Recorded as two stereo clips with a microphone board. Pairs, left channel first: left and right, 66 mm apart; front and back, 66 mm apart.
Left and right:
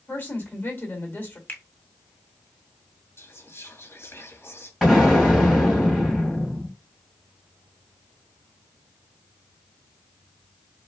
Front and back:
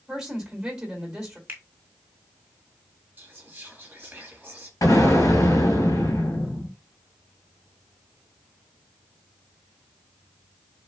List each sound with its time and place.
0.1 s a woman speaking: 110° left, 1.6 m
1.5 s a finger snap: 135° left, 0.8 m
3.2 s whispering: 125° left, 1.9 m
4.8 s an explosion: 5° left, 2.5 m